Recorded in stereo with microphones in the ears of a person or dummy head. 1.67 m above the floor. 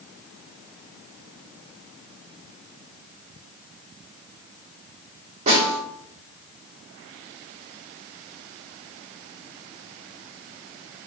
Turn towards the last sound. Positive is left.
turn(degrees=-40)  # may be behind; listen again after turning